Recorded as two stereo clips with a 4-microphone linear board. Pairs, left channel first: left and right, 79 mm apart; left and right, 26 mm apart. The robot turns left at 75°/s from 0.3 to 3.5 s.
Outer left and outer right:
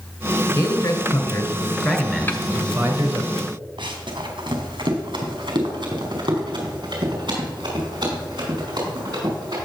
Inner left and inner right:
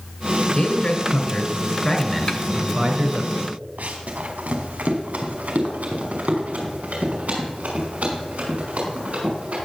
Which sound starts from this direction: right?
Running footsteps, at 3.8 s.